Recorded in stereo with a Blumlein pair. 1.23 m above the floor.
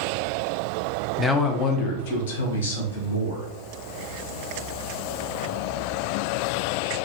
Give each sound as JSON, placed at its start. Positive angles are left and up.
{"t": 1.2, "sound": "a man speaking", "azimuth_deg": 5, "distance_m": 0.5}